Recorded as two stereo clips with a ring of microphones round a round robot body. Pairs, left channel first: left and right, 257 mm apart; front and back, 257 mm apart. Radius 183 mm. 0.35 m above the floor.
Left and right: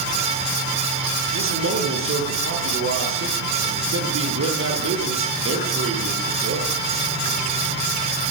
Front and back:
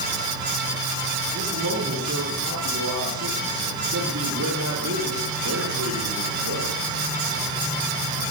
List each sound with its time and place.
1.3 s a man speaking: 125° right, 8 m